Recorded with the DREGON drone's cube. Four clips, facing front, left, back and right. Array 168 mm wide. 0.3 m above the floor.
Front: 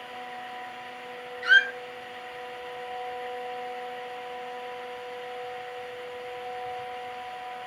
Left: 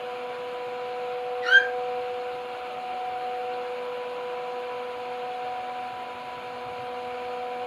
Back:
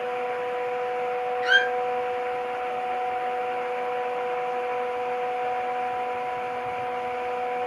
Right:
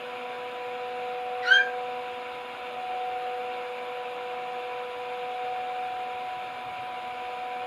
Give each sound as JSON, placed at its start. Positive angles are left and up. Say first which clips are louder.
{"t": 1.4, "sound": "a squeak", "louder": "left 2 dB, front 2 dB", "azimuth_deg": -145, "distance_m": 3.0}